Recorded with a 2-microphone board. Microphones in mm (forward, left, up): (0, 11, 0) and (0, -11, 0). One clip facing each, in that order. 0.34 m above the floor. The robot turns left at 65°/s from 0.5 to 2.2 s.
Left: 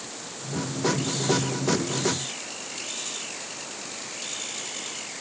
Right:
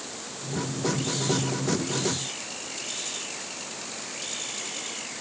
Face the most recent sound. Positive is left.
No sound to turn to.